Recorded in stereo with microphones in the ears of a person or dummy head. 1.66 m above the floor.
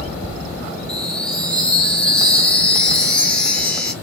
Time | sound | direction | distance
0.9 | a chime | 5° left (ahead or behind) | 2 m